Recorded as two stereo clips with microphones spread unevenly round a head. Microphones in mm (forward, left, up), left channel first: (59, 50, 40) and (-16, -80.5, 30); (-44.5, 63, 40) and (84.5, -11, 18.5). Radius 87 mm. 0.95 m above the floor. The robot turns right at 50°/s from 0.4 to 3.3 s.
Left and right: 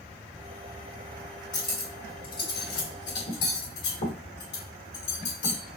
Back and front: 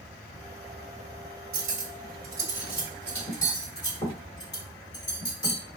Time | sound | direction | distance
1.5 | cutlery clinking | 5° right | 2.5 m